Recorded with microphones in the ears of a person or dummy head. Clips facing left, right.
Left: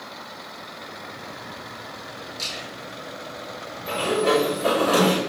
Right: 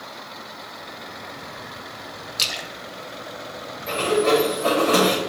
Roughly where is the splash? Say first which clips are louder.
Right 1 dB; right.